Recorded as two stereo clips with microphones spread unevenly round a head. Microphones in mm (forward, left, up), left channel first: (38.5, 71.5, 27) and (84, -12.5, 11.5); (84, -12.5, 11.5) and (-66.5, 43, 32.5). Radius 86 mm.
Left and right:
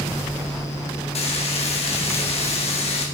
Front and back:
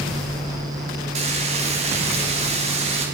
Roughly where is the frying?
Left.